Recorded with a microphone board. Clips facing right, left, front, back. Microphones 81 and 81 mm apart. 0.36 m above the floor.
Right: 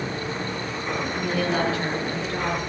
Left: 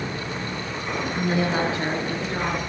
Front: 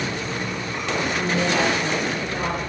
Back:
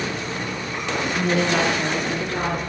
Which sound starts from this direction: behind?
A woman speaking, at 1.1 s.